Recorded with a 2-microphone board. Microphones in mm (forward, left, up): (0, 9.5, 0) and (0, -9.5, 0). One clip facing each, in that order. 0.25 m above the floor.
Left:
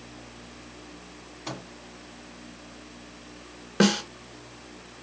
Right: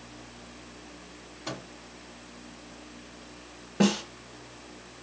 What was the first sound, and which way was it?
A microwave, 5° left (ahead or behind).